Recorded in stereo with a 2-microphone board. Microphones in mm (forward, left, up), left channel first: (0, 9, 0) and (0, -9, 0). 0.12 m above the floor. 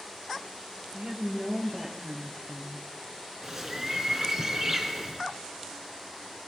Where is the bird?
25° right (ahead or behind), 1.8 m.